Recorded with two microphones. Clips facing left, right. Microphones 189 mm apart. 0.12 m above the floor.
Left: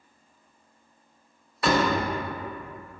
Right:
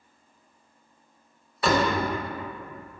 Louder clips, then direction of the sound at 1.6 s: Even; centre (ahead or behind).